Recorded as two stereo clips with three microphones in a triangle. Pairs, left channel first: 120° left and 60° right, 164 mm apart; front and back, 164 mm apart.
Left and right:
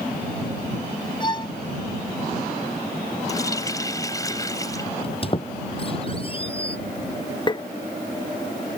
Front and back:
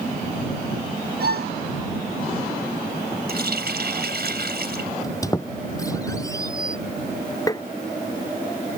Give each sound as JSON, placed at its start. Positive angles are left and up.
{"t": 1.2, "sound": "a violin", "azimuth_deg": 180}
{"t": 3.3, "sound": "a running tap", "azimuth_deg": -170}
{"t": 5.0, "sound": "a squeak", "azimuth_deg": 70}
{"t": 7.5, "sound": "tapping", "azimuth_deg": 60}